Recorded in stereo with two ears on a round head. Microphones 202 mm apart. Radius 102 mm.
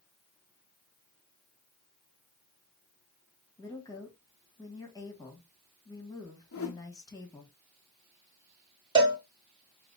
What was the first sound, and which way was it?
A woman speaking, 15° left (ahead or behind).